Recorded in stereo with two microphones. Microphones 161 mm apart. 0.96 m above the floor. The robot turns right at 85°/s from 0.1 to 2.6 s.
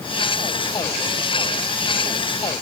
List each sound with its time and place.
Only background noise.